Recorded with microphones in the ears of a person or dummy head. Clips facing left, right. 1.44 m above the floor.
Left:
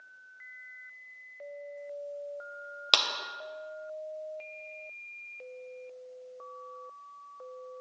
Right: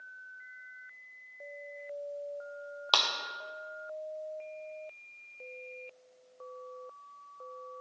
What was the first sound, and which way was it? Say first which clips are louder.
A clap: even; 25° left (ahead or behind).